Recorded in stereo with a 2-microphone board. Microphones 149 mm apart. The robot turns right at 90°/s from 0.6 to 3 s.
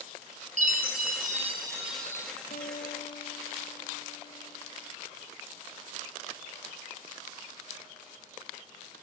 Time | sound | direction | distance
0.6 | a chime | 120° right | 3.5 m
2.5 | a guitar | 65° left | 1.8 m